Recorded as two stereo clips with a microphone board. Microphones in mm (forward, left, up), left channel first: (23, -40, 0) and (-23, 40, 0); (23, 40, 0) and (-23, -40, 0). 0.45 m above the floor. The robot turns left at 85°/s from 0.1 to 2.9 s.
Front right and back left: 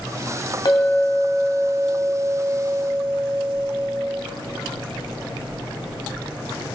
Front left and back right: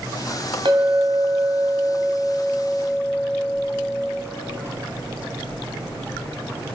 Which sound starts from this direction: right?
A clink, at 0.7 s.